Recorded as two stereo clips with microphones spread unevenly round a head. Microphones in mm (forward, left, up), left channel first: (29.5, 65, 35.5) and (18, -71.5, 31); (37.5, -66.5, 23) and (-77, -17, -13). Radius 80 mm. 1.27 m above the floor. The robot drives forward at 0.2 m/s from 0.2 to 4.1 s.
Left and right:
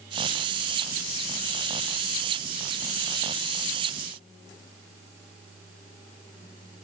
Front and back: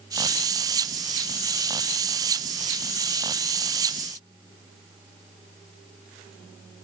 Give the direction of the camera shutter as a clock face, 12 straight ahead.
I don't hear a camera shutter.